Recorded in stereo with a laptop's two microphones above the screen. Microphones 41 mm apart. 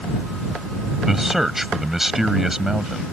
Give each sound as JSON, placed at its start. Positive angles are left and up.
{"t": 1.0, "sound": "a man speaking", "side_deg": -10}